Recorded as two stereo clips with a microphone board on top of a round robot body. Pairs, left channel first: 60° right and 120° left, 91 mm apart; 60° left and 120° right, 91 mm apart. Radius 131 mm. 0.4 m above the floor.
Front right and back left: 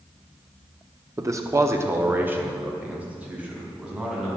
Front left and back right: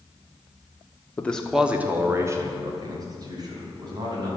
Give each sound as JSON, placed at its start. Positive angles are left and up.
{"t": 1.2, "sound": "a man speaking", "azimuth_deg": 115, "distance_m": 1.3}